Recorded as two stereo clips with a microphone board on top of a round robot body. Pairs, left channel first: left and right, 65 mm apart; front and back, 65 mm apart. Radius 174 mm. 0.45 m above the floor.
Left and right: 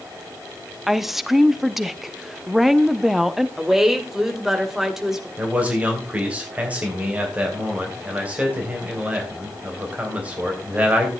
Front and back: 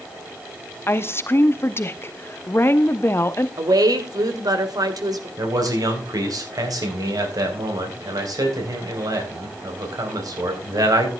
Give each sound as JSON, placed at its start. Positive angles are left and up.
{"t": 0.9, "sound": "a woman speaking", "azimuth_deg": -5, "distance_m": 1.3}
{"t": 3.6, "sound": "a woman speaking", "azimuth_deg": -175, "distance_m": 2.5}
{"t": 5.4, "sound": "a man speaking", "azimuth_deg": -160, "distance_m": 4.0}